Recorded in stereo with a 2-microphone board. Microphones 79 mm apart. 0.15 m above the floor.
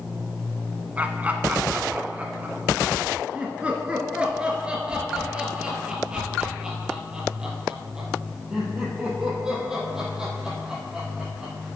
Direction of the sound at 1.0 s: 20° right (ahead or behind).